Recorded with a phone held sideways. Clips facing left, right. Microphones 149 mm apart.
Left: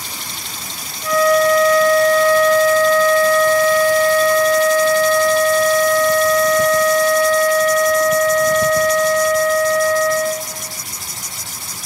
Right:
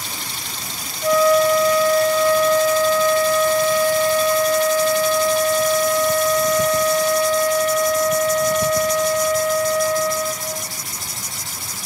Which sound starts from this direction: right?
A flute, at 1.0 s.